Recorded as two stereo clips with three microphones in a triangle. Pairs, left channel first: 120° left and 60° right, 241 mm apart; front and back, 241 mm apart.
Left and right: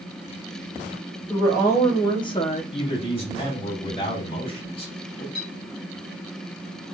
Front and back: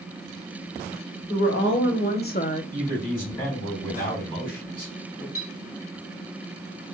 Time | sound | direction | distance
1.3 | a woman speaking | 40° left | 1.6 m
2.7 | a man speaking | 55° left | 2 m
5.3 | a clink | 15° right | 1.6 m